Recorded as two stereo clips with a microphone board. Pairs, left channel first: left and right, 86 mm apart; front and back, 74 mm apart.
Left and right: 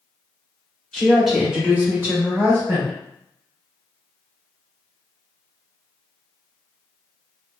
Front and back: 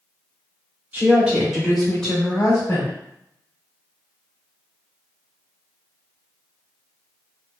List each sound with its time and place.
0.9 s a woman speaking: 165° left, 0.9 m; by 2.9 s 50° right, 1.3 m